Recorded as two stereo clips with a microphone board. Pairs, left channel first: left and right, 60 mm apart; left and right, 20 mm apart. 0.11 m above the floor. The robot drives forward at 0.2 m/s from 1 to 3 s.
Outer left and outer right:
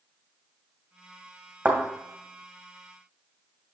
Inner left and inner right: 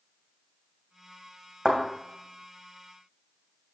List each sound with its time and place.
1.6 s a thud: 25° right (ahead or behind), 2.5 m